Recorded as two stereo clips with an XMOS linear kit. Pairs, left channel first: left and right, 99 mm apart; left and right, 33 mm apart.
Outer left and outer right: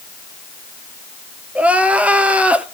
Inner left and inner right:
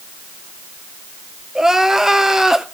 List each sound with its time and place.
1.6 s crying: 15° right (ahead or behind), 0.9 m